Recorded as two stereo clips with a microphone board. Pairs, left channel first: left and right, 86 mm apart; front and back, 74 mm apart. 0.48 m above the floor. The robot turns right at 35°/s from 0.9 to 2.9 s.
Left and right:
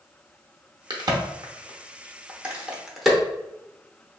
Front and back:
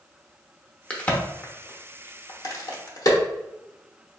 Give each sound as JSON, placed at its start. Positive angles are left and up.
{"t": 0.9, "sound": "a crack", "azimuth_deg": -70, "distance_m": 0.7}